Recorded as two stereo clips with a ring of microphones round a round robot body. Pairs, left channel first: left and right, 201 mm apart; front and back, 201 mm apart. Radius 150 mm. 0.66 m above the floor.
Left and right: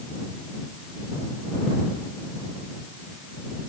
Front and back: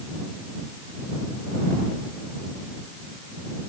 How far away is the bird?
I don't hear a bird.